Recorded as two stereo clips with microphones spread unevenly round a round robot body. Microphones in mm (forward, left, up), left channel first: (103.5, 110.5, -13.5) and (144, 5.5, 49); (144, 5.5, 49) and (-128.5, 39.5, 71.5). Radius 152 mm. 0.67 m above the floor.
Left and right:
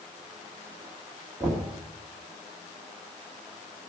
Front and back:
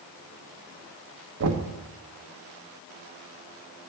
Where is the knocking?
175° right, 1.1 m.